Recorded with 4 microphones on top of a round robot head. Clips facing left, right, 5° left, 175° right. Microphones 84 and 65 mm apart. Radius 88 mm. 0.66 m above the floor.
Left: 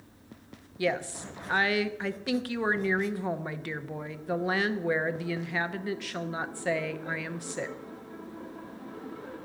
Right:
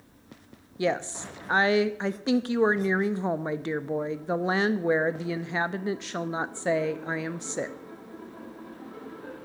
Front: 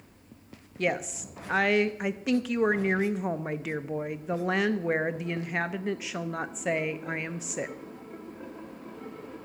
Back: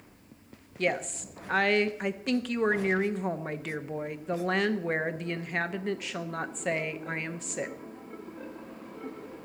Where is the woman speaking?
75° right, 0.7 m.